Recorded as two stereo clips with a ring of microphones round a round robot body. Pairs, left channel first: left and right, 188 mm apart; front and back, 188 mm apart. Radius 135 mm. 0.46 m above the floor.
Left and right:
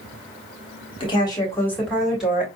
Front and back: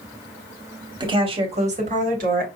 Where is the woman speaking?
130° left, 1.5 m; by 2.5 s 170° right, 1.8 m.